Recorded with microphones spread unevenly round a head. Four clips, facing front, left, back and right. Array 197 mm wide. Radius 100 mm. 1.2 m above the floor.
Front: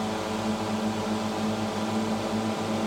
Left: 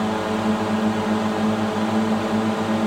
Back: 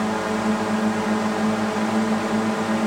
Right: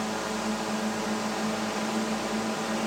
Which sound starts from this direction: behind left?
A drone, at 0.0 s.